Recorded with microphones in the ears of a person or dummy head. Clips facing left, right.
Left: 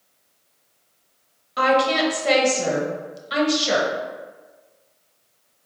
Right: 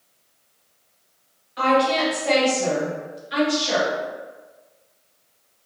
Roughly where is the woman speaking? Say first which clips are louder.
Even; left.